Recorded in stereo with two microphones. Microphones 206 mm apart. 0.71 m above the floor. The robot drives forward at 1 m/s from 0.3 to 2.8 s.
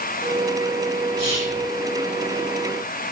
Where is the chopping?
No chopping in this recording.